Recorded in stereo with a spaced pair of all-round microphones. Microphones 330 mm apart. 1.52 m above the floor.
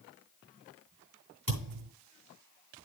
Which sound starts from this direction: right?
A thud, at 1.5 s.